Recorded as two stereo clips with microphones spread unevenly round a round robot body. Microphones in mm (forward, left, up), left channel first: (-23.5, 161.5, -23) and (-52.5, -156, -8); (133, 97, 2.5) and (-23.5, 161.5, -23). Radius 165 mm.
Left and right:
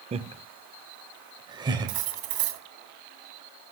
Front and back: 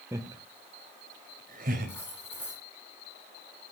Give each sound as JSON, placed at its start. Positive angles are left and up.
{"t": 0.1, "sound": "laughter", "azimuth_deg": -155, "distance_m": 0.8}
{"t": 1.9, "sound": "cutlery clinking", "azimuth_deg": -110, "distance_m": 2.0}